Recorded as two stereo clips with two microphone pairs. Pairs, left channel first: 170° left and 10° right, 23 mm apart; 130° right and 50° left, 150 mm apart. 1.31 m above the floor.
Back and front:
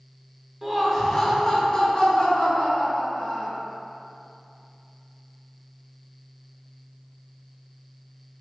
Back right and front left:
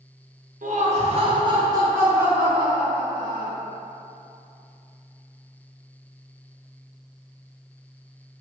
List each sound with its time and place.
0.6 s laughter: 70° left, 0.6 m; by 3.6 s 140° left, 1.9 m